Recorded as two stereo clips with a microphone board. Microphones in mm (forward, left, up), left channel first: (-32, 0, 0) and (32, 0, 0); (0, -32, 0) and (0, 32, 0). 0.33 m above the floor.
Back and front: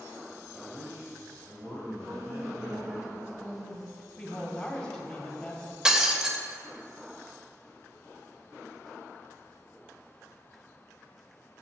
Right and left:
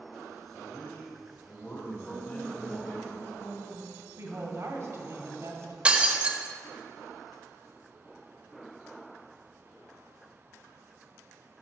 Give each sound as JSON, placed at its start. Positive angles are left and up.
{"t": 0.5, "sound": "a man speaking", "azimuth_deg": -40, "distance_m": 2.0}
{"t": 1.9, "sound": "a woman speaking", "azimuth_deg": -45, "distance_m": 2.5}
{"t": 4.2, "sound": "a woman speaking", "azimuth_deg": 90, "distance_m": 1.7}
{"t": 5.8, "sound": "breaking glass", "azimuth_deg": 60, "distance_m": 0.6}